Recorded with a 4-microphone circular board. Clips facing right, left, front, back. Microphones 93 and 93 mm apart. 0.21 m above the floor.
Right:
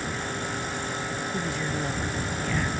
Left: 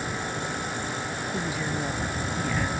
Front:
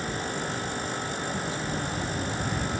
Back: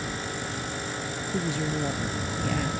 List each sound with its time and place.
1.3 s a woman speaking: 175° left